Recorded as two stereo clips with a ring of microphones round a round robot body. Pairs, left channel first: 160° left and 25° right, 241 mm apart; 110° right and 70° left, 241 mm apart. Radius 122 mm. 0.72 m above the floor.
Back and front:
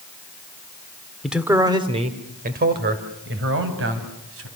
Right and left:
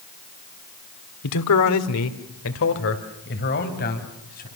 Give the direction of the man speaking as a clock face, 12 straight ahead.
4 o'clock.